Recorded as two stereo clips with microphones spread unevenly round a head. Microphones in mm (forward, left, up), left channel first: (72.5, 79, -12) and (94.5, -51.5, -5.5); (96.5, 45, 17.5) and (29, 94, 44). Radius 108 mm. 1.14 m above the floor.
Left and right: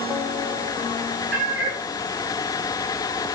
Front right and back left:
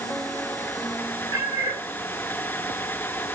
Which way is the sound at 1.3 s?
110° right.